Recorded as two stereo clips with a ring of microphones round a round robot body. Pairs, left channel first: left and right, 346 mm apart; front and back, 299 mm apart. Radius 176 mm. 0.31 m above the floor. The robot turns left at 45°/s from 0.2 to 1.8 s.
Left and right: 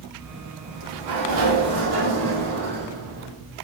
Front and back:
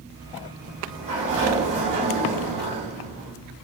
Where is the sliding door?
85° right, 3.5 m; by 3.3 s 140° right, 3.5 m.